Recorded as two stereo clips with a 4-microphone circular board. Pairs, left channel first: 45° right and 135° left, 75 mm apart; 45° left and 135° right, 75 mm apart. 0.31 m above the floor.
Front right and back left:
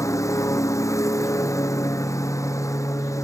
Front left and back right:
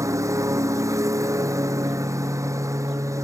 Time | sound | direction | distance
0.0 | a lawn mower | 90° right | ?